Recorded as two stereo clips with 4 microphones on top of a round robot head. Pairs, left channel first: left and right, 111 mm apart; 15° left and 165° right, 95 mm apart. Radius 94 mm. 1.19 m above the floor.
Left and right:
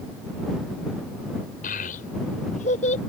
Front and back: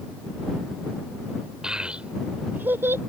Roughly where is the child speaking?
Left.